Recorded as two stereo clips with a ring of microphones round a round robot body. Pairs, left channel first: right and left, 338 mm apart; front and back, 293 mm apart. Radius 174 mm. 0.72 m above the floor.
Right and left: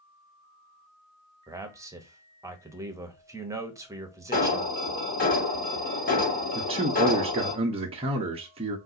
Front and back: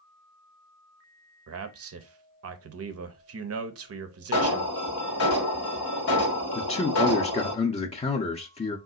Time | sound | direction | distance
1.5 | a man speaking | 170° left | 0.7 m
4.3 | an alarm | 30° right | 1.2 m
6.5 | a man speaking | 40° left | 0.7 m